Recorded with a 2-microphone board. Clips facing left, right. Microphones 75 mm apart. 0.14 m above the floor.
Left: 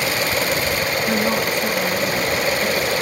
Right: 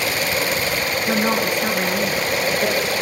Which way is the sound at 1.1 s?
20° right (ahead or behind).